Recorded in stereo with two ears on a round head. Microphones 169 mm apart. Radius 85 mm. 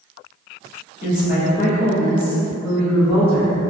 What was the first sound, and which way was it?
A woman speaking, 45° left (ahead or behind).